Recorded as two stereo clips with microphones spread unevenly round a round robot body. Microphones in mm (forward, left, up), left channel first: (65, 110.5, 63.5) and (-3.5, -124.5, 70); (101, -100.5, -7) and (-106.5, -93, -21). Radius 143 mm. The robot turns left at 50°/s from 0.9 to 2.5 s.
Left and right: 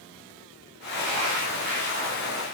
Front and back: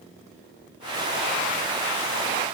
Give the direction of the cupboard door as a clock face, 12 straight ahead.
No cupboard door in this recording.